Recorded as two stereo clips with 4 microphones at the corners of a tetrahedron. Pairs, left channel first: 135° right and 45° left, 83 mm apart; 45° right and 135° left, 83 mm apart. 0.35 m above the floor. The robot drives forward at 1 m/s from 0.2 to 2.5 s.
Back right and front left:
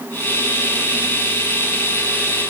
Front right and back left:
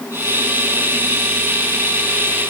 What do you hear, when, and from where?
Only background noise.